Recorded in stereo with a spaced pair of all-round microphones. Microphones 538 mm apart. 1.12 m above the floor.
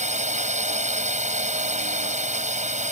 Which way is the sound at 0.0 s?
15° right (ahead or behind).